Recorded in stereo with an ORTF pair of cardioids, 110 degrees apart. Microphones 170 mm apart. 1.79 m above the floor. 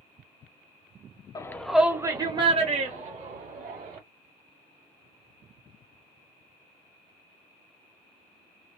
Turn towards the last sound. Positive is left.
turn(degrees=-50)